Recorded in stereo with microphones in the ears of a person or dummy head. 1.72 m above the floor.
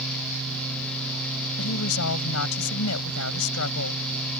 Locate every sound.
1.6 s a woman speaking: 85° left